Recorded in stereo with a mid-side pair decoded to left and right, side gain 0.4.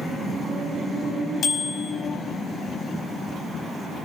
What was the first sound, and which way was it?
A bicycle bell, 70° left.